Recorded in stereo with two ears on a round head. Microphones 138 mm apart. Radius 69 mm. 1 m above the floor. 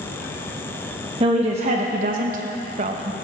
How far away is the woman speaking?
About 1.3 m.